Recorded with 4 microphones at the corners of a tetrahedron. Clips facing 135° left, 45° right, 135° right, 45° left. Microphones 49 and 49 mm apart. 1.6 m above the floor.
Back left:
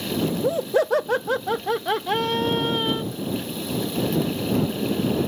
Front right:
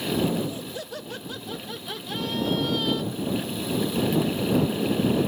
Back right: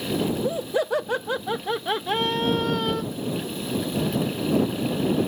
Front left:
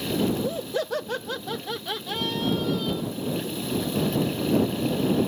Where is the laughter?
145° left; by 3.0 s 160° right.